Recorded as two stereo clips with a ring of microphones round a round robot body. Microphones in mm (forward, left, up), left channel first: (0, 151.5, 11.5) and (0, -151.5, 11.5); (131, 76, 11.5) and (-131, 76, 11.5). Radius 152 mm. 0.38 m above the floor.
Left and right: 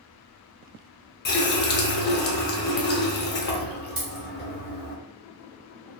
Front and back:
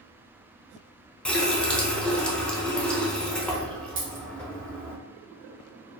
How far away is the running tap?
About 0.6 m.